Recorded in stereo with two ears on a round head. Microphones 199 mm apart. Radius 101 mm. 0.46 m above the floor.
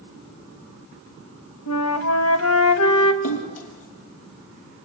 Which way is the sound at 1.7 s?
65° left (ahead or behind).